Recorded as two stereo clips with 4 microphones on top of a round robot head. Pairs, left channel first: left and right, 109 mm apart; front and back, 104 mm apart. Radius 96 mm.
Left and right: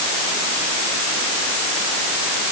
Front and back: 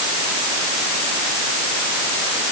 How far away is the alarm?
No alarm in this recording.